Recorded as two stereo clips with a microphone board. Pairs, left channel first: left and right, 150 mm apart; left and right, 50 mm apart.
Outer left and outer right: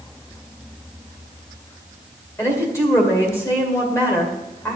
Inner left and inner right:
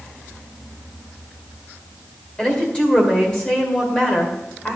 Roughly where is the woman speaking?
Centre.